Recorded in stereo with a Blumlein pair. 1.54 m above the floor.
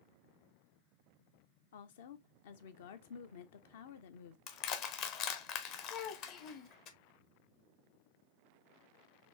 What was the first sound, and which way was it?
A woman speaking, 55° left.